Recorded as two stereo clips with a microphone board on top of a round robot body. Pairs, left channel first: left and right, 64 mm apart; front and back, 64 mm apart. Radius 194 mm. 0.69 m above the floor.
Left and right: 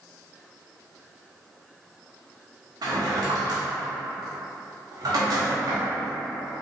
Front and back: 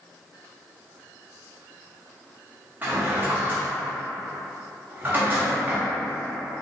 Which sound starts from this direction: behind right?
A drawer, at 2.8 s.